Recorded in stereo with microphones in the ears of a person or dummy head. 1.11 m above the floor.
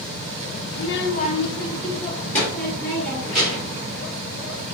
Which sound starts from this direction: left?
A child speaking, at 0.7 s.